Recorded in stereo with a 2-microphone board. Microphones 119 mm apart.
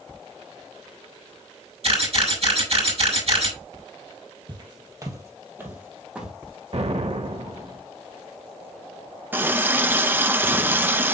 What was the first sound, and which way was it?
A camera shutter, 55° right (ahead or behind).